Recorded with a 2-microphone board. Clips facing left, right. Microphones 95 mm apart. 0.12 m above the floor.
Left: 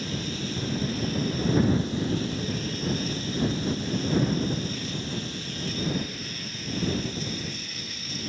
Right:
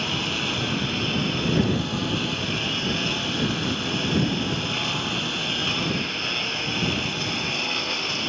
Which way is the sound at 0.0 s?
85° right.